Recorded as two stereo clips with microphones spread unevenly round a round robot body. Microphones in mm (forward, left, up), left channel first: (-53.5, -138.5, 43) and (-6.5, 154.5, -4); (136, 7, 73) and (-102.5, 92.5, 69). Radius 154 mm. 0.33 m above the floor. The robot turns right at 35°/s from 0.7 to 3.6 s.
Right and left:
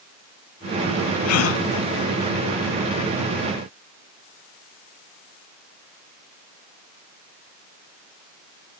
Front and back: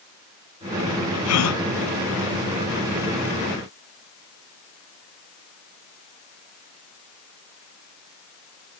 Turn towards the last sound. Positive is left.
turn(degrees=25)